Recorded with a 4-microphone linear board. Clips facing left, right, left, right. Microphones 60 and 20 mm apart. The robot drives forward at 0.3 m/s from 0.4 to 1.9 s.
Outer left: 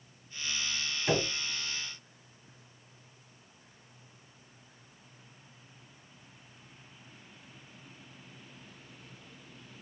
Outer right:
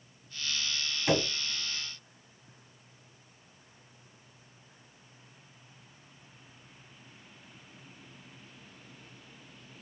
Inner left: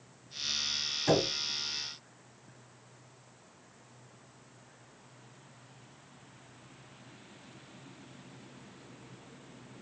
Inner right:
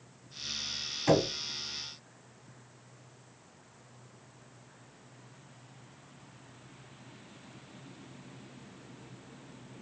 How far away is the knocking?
About 2 m.